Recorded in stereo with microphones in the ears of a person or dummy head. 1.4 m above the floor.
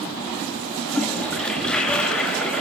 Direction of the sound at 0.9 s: Centre (ahead or behind).